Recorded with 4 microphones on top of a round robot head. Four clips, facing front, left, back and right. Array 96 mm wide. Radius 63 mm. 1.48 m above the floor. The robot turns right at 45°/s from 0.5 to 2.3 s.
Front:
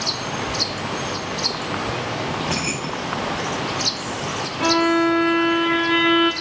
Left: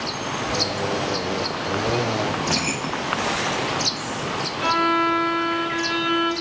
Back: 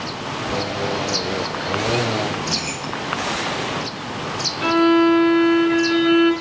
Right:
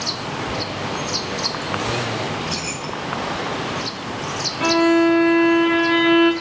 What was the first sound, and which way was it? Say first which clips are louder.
Keys jangling: left 2 dB, front 1 dB; 50° left.